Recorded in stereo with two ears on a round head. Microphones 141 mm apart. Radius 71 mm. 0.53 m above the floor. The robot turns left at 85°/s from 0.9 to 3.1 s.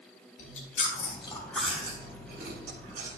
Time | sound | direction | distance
0.4 | chewing | 50° left (ahead or behind) | 3 m